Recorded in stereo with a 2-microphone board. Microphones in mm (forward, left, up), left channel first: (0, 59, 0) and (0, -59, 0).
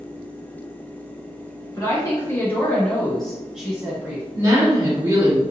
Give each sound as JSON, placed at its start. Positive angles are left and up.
{"t": 1.7, "sound": "a woman speaking", "side_deg": 30, "distance_m": 1.7}
{"t": 4.3, "sound": "a woman speaking", "side_deg": -35, "distance_m": 1.6}